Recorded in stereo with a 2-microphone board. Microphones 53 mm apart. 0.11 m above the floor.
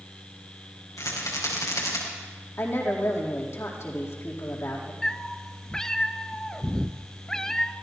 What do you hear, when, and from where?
1.0 s a rattle: 85° left, 5.5 m
2.6 s a woman speaking: 55° left (ahead or behind), 4 m
5.0 s a cat meowing: 10° left (ahead or behind), 0.6 m